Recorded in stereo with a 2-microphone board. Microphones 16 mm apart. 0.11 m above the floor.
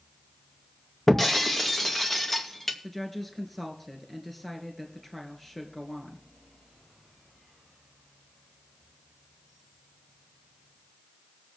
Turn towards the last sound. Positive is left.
turn(degrees=5)  # may be behind; listen again after turning